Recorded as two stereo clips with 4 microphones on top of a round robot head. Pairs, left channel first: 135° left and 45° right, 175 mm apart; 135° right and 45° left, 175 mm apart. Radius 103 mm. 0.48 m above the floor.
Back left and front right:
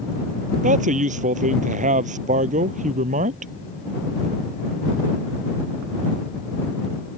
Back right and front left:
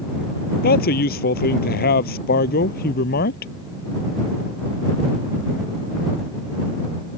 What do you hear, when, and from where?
0.6 s a man speaking: 95° right